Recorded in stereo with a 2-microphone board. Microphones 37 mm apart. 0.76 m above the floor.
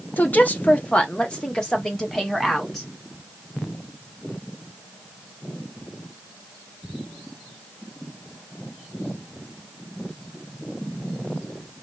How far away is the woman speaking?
About 0.8 m.